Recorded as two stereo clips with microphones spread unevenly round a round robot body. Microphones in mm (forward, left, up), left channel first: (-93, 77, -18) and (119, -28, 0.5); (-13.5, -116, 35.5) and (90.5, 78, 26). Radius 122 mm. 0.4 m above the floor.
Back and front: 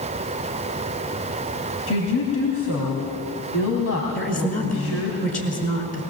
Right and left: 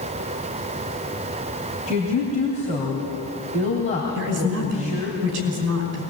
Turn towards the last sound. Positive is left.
turn(degrees=100)